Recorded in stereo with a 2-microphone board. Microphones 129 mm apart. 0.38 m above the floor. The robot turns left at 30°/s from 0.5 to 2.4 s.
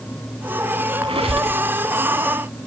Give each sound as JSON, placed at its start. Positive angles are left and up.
{"t": 1.0, "sound": "a squeak", "side_deg": -50, "distance_m": 1.1}